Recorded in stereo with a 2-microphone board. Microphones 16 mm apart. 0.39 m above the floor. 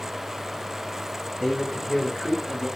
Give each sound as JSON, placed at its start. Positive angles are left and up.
{"t": 1.4, "sound": "a man speaking", "side_deg": 10, "distance_m": 2.5}